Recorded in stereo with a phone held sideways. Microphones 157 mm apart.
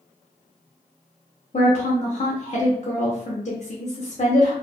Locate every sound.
1.5 s a woman speaking: 45° left (ahead or behind), 0.5 m